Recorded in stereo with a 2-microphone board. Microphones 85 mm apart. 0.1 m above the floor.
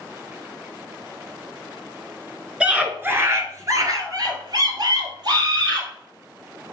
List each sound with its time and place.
2.6 s a scream: 15° right (ahead or behind), 1.1 m; by 5.9 s 60° right (ahead or behind), 2.5 m